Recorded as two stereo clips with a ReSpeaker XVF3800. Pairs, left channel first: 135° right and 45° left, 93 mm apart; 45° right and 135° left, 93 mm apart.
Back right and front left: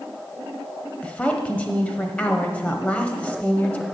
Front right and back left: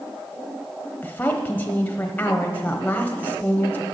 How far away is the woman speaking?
About 0.9 m.